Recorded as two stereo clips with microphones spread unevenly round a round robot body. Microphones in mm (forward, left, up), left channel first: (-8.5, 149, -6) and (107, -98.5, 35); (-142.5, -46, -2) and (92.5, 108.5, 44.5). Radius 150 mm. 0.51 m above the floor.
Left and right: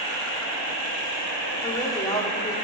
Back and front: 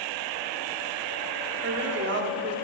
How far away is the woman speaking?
About 1.4 m.